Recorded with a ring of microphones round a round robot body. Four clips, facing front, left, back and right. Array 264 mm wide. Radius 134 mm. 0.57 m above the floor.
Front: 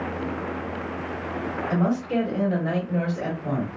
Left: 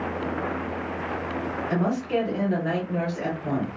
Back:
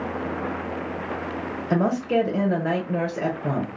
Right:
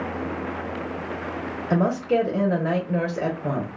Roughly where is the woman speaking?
Behind right.